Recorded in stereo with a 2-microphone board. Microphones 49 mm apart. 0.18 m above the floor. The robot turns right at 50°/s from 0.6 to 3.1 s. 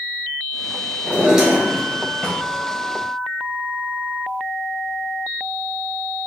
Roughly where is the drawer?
Ahead right.